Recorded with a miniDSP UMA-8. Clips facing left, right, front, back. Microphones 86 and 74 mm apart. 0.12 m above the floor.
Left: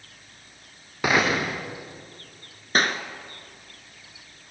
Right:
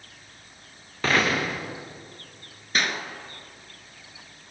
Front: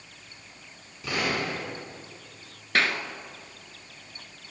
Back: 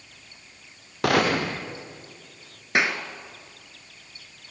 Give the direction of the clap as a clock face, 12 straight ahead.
8 o'clock.